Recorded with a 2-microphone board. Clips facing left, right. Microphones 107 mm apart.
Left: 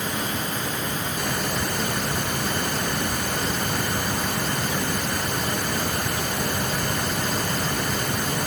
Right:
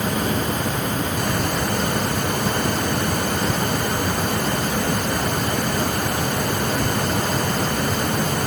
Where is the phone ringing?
I don't hear a phone ringing.